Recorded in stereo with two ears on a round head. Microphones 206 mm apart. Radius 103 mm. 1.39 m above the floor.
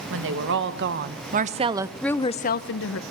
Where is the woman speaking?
60° right (ahead or behind), 1.6 m; by 3.0 s 65° left (ahead or behind), 0.8 m.